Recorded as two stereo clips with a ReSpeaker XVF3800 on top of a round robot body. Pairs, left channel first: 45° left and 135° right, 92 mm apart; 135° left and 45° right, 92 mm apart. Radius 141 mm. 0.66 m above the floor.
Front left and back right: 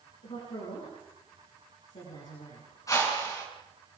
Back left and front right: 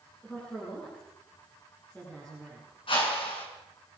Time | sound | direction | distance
0.2 | a woman speaking | 60° left | 9 m
2.9 | a whoosh | 105° left | 5.5 m